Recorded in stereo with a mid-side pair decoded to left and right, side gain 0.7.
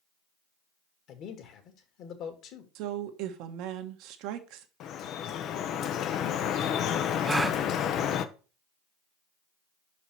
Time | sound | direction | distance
1.1 | a man speaking | 55° left | 2.5 m
2.8 | a woman speaking | 65° right | 1.5 m
4.8 | dripping | 50° left | 0.9 m
7.2 | a gasp | 10° right | 0.8 m